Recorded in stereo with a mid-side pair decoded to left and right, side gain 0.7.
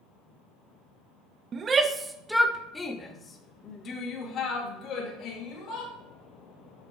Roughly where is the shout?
Ahead right.